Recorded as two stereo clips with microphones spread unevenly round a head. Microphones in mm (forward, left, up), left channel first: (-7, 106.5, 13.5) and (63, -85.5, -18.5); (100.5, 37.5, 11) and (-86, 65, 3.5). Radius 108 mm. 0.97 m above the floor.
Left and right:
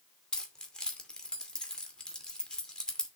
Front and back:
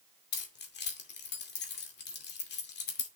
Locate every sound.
0.3 s keys jangling: 25° left, 2.5 m